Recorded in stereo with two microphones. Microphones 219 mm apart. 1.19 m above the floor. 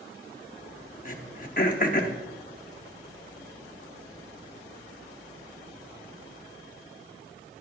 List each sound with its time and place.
1.1 s throat clearing: 40° left (ahead or behind), 0.8 m